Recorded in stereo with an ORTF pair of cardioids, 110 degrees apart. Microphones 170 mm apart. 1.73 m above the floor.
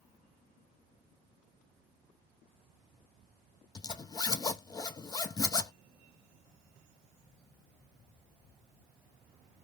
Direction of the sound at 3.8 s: 25° left.